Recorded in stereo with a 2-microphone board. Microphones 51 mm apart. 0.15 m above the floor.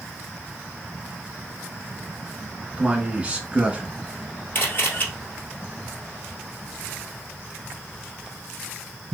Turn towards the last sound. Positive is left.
turn(degrees=40)  # may be behind; listen again after turning